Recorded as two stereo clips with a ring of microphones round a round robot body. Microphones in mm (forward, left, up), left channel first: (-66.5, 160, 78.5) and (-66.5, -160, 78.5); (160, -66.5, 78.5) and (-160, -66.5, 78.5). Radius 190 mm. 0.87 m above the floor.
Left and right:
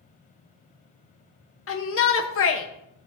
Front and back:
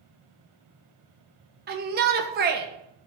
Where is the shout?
125° left, 1.2 m.